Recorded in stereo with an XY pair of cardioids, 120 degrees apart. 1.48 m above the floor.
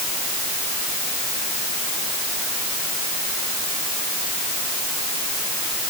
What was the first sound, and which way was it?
Only background noise.